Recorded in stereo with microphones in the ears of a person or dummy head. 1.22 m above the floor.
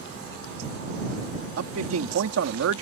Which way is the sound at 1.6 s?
75° right (ahead or behind).